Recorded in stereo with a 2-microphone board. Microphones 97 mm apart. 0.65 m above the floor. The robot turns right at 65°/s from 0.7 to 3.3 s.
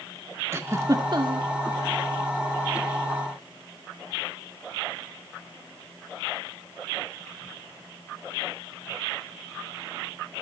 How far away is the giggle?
About 1.6 m.